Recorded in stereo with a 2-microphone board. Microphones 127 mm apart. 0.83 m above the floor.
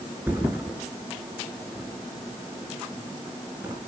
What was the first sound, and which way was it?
A thud, 15° right (ahead or behind).